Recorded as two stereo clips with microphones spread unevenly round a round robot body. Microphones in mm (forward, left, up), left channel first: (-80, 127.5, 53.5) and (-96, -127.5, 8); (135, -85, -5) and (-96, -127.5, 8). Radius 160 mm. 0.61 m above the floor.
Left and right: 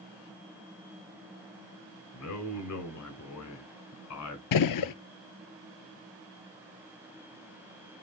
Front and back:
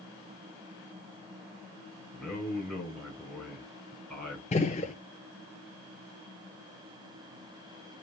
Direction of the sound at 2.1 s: 100° left.